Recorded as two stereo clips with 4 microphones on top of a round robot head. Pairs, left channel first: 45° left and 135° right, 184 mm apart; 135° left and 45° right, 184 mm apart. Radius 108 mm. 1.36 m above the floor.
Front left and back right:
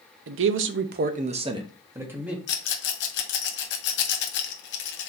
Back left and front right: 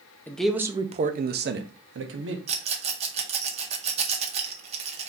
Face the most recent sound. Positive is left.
turn(degrees=15)